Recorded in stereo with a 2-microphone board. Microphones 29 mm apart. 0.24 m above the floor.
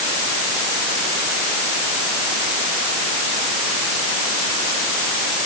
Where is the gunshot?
I don't hear a gunshot.